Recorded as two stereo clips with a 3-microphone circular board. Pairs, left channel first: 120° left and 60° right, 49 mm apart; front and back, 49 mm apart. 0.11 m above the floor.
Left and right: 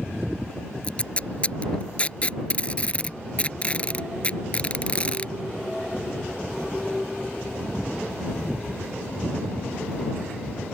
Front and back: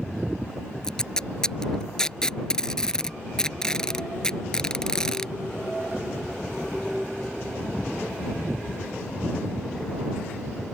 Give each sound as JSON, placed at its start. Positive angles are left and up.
{"t": 0.8, "sound": "tape being pulled", "azimuth_deg": 70}